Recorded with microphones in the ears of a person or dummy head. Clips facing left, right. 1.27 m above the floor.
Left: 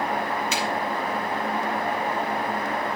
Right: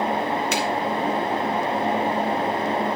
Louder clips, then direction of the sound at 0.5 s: Right 4 dB; 50° right (ahead or behind).